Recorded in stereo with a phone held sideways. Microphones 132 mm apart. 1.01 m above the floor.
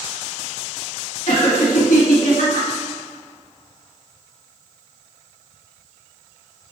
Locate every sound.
1.3 s laughter: 75° left (ahead or behind), 1.8 m